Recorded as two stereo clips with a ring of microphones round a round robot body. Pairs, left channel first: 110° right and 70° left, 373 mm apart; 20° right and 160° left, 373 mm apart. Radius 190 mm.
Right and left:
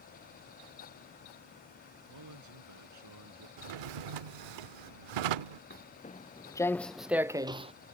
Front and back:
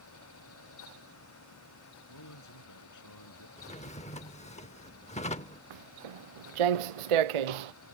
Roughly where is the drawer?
Ahead left.